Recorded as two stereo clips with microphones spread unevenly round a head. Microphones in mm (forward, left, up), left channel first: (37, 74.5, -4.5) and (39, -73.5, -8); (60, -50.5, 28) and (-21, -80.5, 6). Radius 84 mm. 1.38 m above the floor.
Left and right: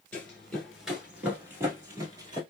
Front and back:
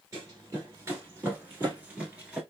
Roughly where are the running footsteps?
Behind left.